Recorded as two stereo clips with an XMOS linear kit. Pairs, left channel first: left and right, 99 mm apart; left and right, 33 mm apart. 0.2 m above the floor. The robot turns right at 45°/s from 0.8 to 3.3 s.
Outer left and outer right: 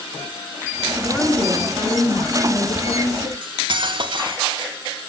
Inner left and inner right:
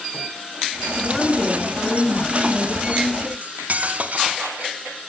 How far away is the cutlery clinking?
About 1.3 m.